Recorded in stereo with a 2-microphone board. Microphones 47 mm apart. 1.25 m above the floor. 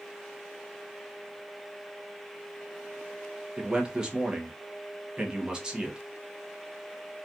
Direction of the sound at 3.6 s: 20° right (ahead or behind).